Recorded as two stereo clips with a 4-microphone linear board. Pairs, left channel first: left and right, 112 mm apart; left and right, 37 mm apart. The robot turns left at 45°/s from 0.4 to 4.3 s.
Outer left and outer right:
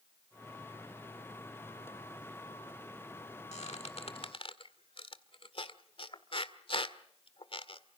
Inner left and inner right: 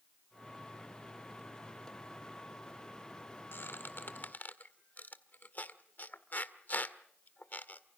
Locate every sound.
3.5 s a squeak: 75° left (ahead or behind), 1.9 m; by 7.8 s 55° left (ahead or behind), 1.9 m